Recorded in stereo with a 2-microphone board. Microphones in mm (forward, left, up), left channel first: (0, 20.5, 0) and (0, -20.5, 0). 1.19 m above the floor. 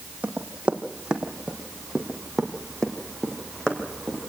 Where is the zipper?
No zipper in this recording.